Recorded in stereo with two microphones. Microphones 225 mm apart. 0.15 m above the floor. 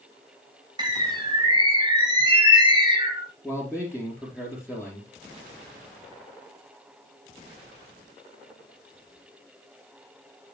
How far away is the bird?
About 1.7 m.